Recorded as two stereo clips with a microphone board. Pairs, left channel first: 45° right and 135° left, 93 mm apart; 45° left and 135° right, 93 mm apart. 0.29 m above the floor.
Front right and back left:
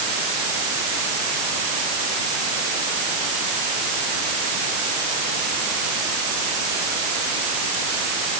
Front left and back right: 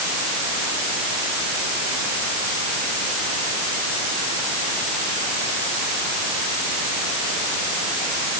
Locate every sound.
Only background noise.